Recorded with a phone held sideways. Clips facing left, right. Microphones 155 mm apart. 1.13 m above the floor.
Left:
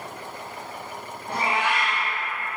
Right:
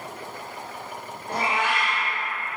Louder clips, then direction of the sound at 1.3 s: Even; 40° left (ahead or behind).